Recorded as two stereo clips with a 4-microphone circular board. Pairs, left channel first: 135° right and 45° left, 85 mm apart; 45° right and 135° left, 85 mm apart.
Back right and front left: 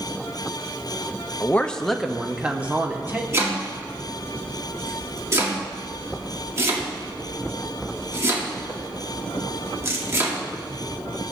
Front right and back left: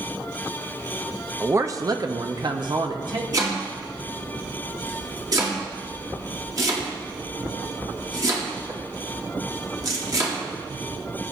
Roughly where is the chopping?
Left.